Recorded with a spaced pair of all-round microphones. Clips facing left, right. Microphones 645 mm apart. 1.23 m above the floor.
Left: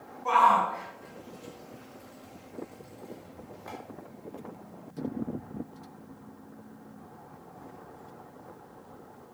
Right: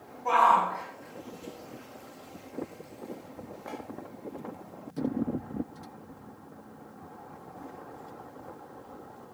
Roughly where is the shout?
Left.